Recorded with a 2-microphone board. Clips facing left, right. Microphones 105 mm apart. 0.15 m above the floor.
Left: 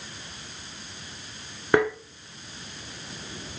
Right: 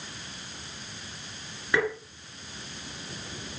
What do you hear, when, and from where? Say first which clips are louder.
1.7 s tapping: left 6 dB; 55° left (ahead or behind), 1.4 m